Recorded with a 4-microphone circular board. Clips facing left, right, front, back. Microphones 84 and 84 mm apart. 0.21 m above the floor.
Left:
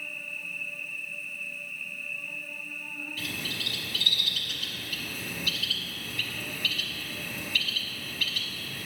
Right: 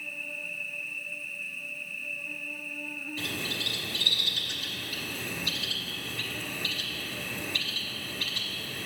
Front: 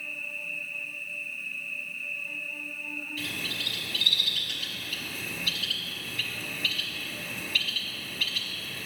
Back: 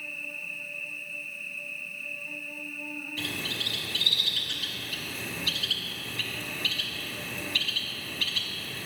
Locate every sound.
0.0 s an insect: 100° left, 1.8 m
3.2 s a bird: 135° right, 1.3 m